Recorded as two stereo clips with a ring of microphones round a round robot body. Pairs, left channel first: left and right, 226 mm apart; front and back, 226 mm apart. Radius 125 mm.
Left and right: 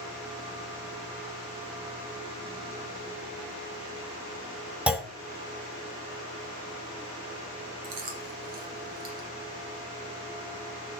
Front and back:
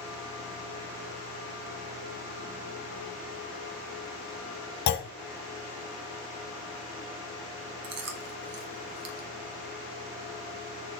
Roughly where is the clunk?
Ahead.